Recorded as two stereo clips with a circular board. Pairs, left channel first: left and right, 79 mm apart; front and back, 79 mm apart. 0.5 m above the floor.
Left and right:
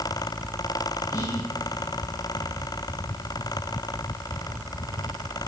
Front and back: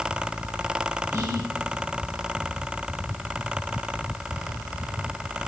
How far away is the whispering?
About 4 m.